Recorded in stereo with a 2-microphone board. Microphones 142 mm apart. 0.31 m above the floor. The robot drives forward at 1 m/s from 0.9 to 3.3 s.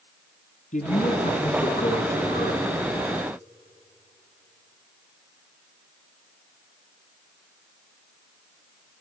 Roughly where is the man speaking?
Left.